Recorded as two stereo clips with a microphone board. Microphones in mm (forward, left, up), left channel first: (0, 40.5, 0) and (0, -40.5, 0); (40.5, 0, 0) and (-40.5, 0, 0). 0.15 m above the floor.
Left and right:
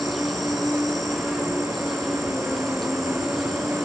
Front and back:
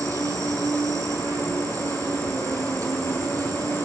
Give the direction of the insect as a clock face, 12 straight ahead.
6 o'clock.